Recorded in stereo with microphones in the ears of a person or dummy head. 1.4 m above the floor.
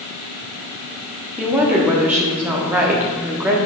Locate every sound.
1.4 s a woman speaking: 10° right (ahead or behind), 1.0 m